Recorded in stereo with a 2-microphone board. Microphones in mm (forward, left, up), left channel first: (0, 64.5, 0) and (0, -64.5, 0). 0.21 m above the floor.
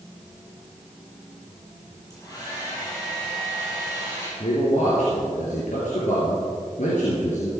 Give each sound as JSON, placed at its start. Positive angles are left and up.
{"t": 2.1, "sound": "a hair dryer", "side_deg": 30, "distance_m": 5.5}
{"t": 4.4, "sound": "a man speaking", "side_deg": 70, "distance_m": 4.0}